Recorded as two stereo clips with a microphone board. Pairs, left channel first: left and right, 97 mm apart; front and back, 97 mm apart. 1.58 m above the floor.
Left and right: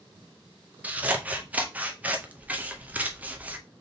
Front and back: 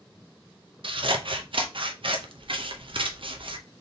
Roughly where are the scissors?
Behind.